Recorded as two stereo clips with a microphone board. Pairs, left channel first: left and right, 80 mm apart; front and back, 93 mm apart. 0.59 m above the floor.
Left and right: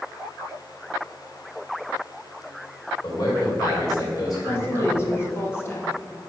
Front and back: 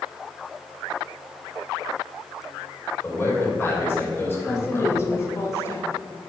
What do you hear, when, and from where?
3.0 s a man speaking: 60° left, 2 m
4.5 s a woman speaking: 45° left, 1.4 m